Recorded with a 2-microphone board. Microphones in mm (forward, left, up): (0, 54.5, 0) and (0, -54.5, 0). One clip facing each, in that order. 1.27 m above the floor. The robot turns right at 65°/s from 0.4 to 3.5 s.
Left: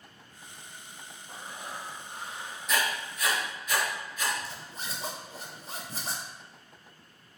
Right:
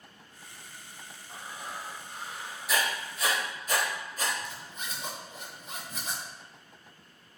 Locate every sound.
1.3 s breathing: 75° left, 0.9 m; by 2.8 s 175° left, 0.9 m
2.7 s writing: 5° right (ahead or behind), 0.9 m; by 4.3 s 40° right (ahead or behind), 0.9 m
4.4 s a zipper: 35° left (ahead or behind), 0.6 m